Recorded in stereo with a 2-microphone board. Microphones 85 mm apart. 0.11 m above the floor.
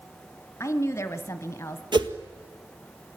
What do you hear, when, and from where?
0.6 s a woman speaking: 30° left (ahead or behind), 1.4 m
1.9 s a whoosh: 60° right (ahead or behind), 1.5 m